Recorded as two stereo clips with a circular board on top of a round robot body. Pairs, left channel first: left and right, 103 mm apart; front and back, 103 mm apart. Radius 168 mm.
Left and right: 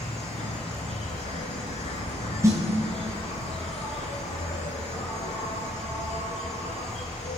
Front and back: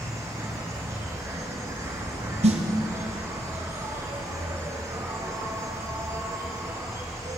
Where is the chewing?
No chewing in this recording.